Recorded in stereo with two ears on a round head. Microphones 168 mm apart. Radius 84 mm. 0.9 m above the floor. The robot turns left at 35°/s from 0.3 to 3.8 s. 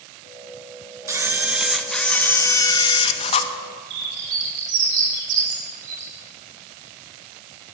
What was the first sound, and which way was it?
A camera shutter, 155° right.